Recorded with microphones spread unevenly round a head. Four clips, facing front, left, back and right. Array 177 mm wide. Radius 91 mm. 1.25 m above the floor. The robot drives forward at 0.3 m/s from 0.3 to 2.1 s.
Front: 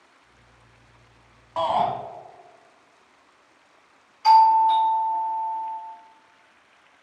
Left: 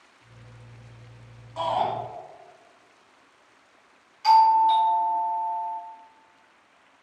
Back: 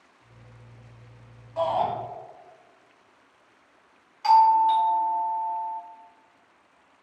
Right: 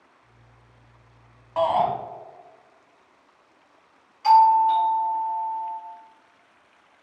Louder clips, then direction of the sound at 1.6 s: Right 4 dB, front 2 dB; 40° right.